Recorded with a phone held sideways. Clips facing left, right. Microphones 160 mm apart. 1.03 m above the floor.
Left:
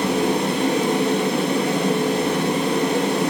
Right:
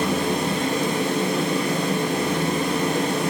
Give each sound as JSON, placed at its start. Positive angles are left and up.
{"t": 0.0, "sound": "a fan", "side_deg": 75, "distance_m": 1.1}